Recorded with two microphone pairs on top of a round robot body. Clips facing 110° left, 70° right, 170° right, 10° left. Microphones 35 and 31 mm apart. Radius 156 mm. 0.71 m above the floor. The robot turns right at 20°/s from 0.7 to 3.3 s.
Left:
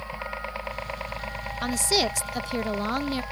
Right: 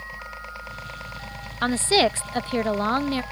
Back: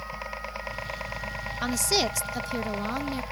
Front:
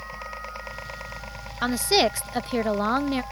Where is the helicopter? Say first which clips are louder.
Left 3 dB, even; 130° left; by 3.3 s 155° right.